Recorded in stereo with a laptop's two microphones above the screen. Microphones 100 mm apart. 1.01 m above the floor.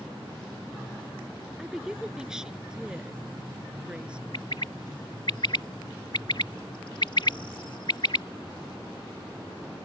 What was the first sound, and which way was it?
A woman speaking, 5° right (ahead or behind).